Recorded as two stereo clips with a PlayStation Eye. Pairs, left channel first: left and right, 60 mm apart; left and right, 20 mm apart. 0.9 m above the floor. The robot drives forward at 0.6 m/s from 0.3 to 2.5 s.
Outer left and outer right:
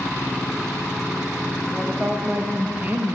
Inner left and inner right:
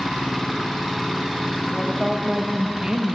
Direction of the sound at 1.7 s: 20° right (ahead or behind).